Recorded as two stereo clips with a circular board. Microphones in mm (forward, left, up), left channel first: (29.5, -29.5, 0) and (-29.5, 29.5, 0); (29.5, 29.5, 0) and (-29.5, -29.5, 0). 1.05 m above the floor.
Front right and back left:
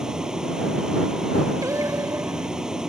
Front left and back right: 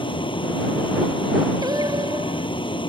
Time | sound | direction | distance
0.0 | a vehicle | 55° left | ?
1.6 | singing | 175° right | ?